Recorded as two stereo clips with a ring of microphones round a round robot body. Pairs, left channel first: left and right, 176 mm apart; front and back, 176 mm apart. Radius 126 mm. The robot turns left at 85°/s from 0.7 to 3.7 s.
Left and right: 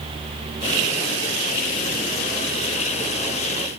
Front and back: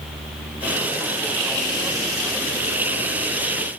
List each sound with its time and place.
Only background noise.